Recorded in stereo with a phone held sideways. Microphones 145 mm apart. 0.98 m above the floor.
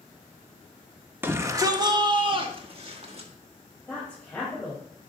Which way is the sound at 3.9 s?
10° left (ahead or behind).